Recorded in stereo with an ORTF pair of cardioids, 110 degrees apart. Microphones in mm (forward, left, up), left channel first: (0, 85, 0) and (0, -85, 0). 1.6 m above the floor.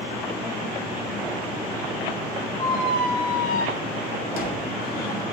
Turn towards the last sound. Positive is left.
turn(degrees=65)